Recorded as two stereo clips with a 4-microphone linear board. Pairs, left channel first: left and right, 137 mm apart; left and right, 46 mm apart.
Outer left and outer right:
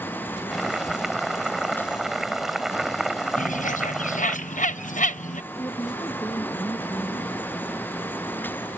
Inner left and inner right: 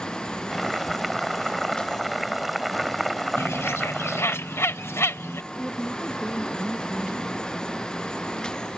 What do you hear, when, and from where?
0.5 s boiling: centre (ahead or behind)
3.4 s a bird: 70° left (ahead or behind)
5.5 s a woman speaking: 20° left (ahead or behind)